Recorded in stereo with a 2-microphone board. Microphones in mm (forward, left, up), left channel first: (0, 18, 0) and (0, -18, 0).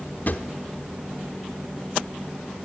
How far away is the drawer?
About 1.1 m.